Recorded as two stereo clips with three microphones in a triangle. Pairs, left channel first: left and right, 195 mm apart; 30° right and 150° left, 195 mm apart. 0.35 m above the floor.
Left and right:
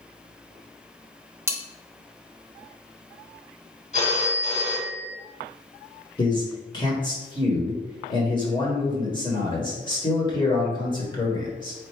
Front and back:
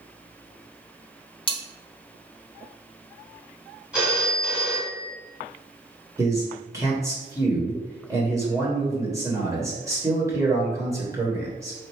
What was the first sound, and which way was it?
Cutlery clinking, 30° right.